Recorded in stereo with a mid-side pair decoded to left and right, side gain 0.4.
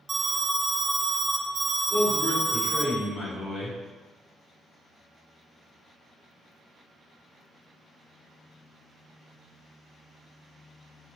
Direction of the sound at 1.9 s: 40° left.